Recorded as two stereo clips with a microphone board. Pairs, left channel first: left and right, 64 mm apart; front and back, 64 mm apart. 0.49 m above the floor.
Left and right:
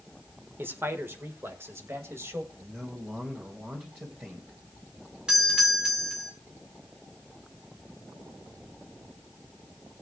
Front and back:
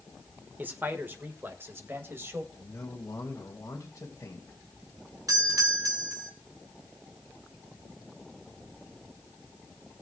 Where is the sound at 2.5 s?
30° right, 2.5 m.